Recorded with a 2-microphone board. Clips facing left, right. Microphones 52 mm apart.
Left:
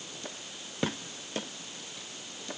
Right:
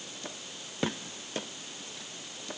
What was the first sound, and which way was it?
Only background noise.